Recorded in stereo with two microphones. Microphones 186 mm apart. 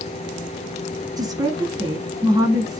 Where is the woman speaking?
20° right (ahead or behind), 1.1 m.